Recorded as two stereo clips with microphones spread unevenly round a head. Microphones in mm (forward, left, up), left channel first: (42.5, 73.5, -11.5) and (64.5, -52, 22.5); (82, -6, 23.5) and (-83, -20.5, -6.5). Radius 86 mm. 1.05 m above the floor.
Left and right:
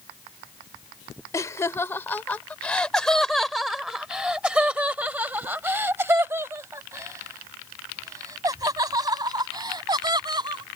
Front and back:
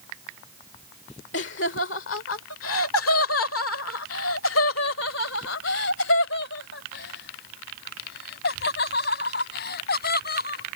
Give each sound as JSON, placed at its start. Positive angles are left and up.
{"t": 1.3, "sound": "laughter", "azimuth_deg": 35}